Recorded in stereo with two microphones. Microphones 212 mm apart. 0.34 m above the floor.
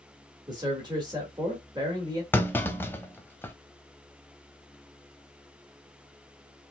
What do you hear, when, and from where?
0.5 s a man speaking: 20° right (ahead or behind), 1.6 m
2.3 s a clunk: 10° left (ahead or behind), 0.7 m